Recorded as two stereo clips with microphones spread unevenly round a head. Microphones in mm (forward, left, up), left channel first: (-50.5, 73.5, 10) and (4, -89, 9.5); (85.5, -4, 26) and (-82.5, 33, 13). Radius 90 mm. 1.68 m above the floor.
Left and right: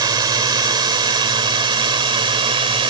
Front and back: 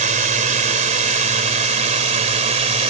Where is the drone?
140° right; by 2.9 s 135° right.